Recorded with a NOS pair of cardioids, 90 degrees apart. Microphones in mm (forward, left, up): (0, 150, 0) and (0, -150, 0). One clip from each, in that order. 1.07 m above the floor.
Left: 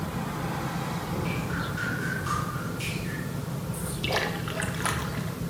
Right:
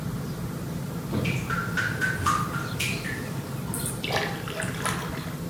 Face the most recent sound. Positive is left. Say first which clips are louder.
# even
turn(degrees=0)